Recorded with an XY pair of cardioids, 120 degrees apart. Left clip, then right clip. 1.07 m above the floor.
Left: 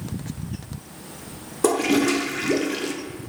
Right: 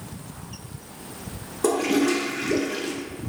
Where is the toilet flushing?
25° left, 0.5 m.